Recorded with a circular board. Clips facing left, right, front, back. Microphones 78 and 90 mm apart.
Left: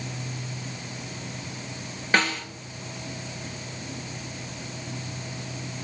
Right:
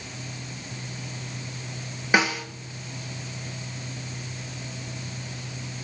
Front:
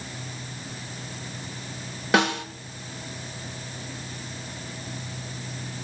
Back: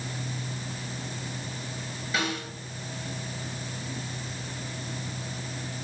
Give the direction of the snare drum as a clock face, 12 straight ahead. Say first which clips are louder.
Right 2 dB, front 9 dB; 12 o'clock.